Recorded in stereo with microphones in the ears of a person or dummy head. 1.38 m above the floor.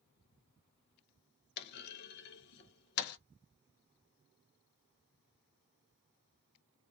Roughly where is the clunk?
Left.